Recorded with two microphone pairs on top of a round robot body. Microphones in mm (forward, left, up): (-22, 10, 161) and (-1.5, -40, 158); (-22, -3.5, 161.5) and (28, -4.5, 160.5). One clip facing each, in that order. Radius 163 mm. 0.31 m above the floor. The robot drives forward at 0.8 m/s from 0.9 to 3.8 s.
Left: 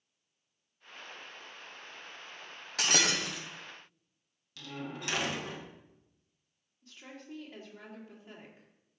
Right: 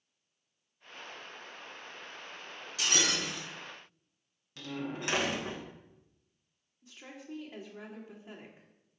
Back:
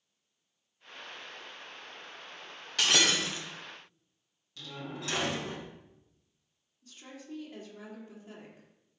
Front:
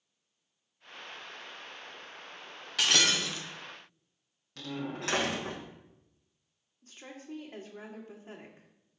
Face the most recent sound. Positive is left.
turn(degrees=0)